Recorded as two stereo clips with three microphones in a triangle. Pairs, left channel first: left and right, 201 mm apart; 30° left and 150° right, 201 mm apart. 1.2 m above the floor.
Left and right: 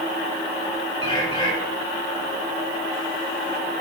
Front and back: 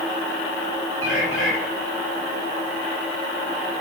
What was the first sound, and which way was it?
A bird, 25° left.